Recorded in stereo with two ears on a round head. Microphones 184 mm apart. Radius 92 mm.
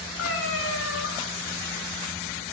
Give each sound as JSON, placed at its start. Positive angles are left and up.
{"t": 0.2, "sound": "a cat meowing", "side_deg": 65, "distance_m": 5.5}